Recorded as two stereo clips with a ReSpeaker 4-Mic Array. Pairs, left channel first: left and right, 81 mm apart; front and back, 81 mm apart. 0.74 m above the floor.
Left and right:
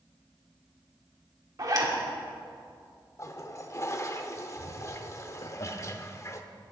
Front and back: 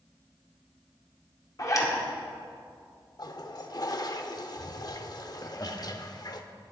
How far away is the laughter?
About 1.1 m.